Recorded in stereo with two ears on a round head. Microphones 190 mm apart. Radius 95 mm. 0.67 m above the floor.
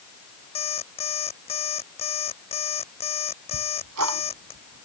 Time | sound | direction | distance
0.6 | an alarm clock | 30° left (ahead or behind) | ?
3.5 | ticking | 80° right | ?